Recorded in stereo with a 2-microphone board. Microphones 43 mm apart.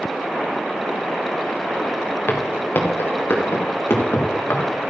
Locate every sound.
2.3 s footsteps: 60° left (ahead or behind), 3 m; by 4.6 s 70° left (ahead or behind), 4 m